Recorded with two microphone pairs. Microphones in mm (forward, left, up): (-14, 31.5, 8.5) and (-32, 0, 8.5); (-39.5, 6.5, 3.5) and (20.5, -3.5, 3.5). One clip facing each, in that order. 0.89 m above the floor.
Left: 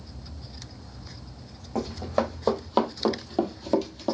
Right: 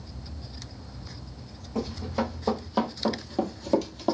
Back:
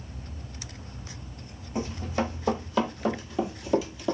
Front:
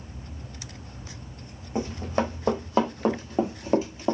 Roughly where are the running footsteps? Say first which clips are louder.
Left 3 dB, front 3 dB; ahead left.